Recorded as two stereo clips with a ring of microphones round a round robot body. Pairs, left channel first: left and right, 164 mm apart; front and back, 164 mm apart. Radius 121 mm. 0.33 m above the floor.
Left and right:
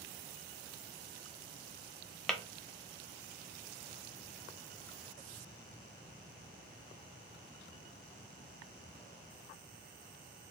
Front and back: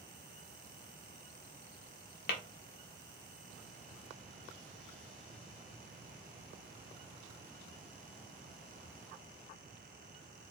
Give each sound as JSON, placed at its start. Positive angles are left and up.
{"t": 2.3, "sound": "tapping", "azimuth_deg": 5, "distance_m": 0.7}